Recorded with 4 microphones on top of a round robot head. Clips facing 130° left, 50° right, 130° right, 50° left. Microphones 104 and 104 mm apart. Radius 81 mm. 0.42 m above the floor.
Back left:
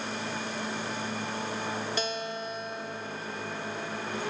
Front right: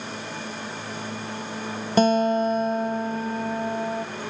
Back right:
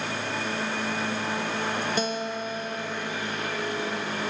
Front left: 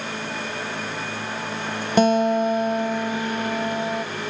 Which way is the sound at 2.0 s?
5° left.